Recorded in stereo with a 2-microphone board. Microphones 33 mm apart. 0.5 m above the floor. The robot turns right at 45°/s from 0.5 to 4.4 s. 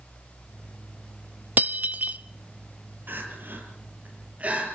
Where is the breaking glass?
60° right (ahead or behind), 0.9 m; by 2.2 s 50° right (ahead or behind), 0.9 m.